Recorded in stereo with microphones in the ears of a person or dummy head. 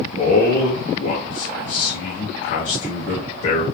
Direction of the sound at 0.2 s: 35° left (ahead or behind).